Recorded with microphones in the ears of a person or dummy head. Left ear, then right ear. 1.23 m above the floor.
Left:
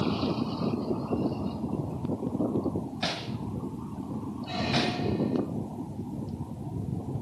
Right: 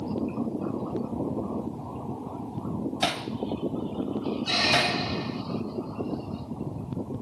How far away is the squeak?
About 0.9 m.